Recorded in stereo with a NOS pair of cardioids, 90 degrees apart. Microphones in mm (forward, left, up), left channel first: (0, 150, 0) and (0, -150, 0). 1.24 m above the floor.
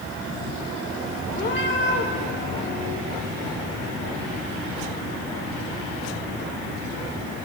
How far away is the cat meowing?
About 2 m.